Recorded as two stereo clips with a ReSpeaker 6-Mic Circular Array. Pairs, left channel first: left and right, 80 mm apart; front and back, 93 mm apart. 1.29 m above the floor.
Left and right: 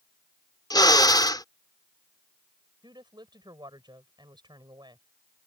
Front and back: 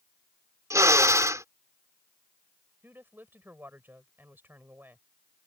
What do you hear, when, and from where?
0.7 s a drill: 125° left
2.8 s a woman speaking: 110° right